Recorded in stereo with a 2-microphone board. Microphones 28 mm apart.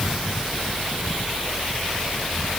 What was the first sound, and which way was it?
Only background noise.